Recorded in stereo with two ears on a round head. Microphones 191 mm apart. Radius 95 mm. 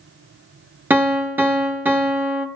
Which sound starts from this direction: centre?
A piano, at 0.9 s.